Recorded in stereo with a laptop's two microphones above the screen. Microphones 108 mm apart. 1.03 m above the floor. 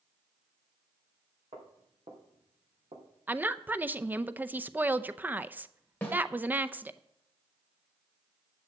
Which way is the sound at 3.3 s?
15° right (ahead or behind).